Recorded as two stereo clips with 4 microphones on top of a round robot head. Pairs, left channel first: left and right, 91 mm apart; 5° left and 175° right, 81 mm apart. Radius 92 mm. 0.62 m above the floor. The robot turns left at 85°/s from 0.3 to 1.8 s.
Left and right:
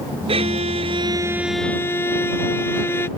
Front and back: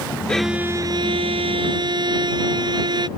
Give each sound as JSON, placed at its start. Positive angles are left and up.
{"t": 0.3, "sound": "a violin", "azimuth_deg": -75}